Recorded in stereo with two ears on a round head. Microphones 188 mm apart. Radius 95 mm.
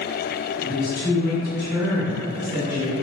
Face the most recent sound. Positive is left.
turn(degrees=5)  # may be behind; listen again after turning